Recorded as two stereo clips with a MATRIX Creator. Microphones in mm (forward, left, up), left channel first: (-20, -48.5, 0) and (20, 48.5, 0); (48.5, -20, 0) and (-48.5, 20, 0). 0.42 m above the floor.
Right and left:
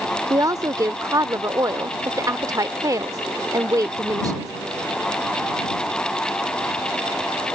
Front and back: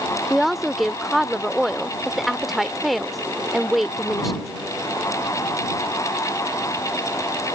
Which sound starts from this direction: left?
A woman speaking, at 0.3 s.